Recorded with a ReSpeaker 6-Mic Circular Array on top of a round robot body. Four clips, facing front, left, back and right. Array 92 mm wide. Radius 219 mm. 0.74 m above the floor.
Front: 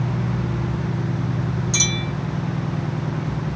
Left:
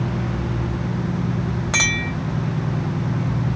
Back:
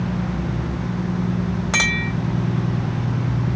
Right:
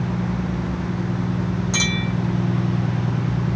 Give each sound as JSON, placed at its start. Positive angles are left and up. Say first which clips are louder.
{"t": 1.7, "sound": "a clink", "louder": "even, back 3 dB", "azimuth_deg": 150, "distance_m": 4.0}